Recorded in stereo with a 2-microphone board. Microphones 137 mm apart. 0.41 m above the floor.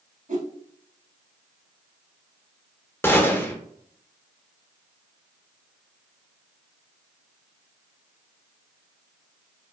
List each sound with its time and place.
0.3 s a whoosh: 65° right (ahead or behind), 0.5 m
3.0 s a gunshot: 15° left (ahead or behind), 0.6 m